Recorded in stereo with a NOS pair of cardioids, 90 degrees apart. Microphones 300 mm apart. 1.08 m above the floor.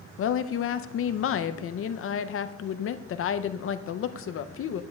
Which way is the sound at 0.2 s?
50° left.